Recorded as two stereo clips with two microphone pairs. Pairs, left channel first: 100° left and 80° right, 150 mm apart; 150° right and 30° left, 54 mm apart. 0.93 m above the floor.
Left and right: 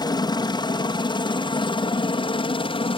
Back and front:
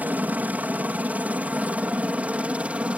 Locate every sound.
0.0 s a helicopter: 60° left; by 3.0 s 80° left